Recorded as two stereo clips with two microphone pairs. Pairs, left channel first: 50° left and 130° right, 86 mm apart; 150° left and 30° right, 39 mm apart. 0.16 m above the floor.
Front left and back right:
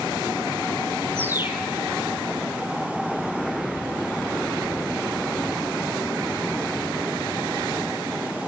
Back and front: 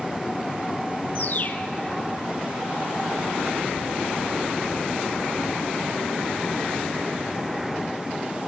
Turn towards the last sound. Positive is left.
turn(degrees=170)